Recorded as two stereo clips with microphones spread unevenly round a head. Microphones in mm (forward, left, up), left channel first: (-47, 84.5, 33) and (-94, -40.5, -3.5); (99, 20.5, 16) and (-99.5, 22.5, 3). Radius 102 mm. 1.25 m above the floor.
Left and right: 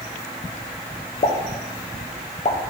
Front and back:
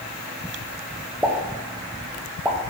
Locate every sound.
1.2 s a pop: 105° left, 0.8 m